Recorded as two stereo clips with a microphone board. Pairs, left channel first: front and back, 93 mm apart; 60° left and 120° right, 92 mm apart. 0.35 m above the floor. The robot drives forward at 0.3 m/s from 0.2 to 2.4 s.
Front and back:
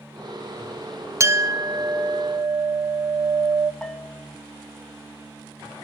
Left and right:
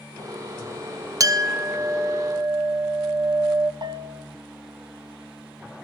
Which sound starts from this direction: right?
A bell, at 3.8 s.